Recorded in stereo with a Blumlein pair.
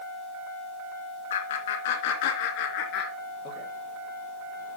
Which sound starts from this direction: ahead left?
Laughter, at 1.3 s.